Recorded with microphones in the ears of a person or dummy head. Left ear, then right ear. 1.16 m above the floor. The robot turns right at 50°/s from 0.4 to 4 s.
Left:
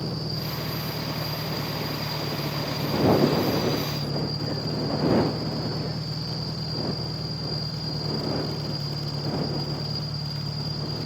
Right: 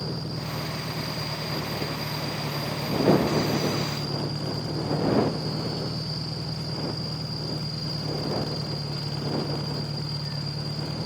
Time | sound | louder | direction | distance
0.0 | an engine running | left 2 dB | 100° left | ?